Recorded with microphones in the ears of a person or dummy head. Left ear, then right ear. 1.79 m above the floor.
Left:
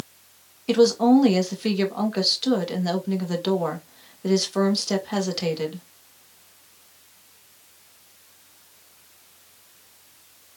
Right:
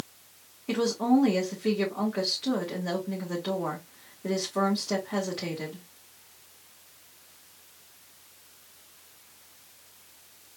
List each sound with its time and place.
0.7 s a woman speaking: 40° left (ahead or behind), 1.8 m